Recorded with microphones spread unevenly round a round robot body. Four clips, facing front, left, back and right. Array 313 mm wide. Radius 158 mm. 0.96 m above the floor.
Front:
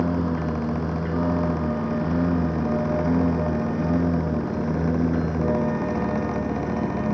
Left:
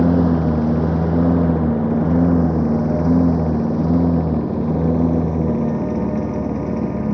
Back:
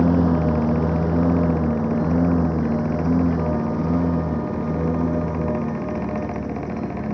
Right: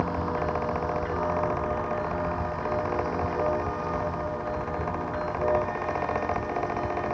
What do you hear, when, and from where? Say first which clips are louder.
0.0 s a lawn mower: left 12 dB, back 6 dB; 115° left; by 7.1 s 80° left